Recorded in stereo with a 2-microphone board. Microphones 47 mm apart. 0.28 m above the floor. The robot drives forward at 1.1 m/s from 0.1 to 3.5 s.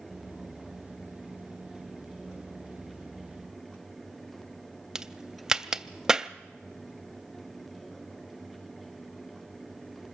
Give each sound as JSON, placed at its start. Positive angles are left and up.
{"t": 5.0, "sound": "a crack", "side_deg": -10, "distance_m": 0.5}